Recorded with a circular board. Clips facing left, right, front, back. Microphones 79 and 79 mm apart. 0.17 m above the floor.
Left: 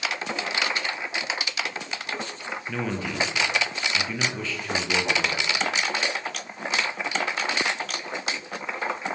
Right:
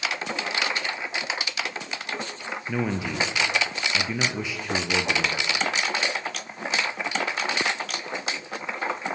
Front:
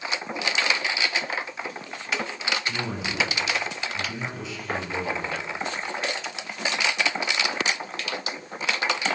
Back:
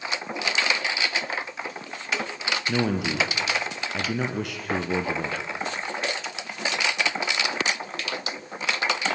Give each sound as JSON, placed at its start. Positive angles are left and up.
{"t": 2.7, "sound": "a man speaking", "azimuth_deg": -165, "distance_m": 3.5}